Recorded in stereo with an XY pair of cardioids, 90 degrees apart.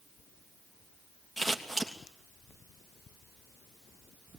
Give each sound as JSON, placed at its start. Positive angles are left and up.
{"t": 1.4, "sound": "scissors", "azimuth_deg": 10, "distance_m": 3.0}